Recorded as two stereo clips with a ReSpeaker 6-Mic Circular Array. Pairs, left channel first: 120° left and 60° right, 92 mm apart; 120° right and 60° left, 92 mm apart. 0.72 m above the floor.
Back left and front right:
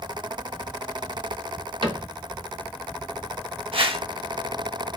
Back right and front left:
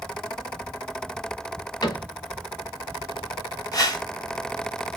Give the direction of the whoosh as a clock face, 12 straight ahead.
2 o'clock.